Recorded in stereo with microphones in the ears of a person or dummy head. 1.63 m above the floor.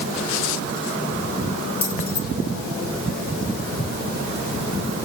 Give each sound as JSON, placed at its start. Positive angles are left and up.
{"t": 1.8, "sound": "keys jangling", "side_deg": 15, "distance_m": 3.0}